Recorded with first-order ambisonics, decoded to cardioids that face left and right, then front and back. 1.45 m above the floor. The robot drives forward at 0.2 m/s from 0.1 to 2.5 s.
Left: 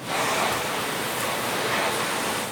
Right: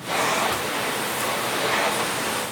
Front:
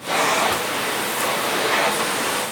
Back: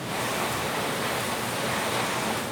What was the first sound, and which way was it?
Only background noise.